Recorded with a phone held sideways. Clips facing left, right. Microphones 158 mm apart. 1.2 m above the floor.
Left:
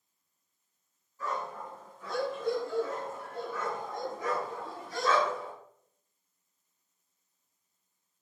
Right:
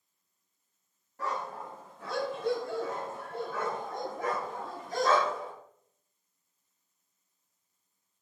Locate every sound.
1.2 s a dog barking: 85° right, 4.5 m; by 5.5 s 45° right (ahead or behind), 3.5 m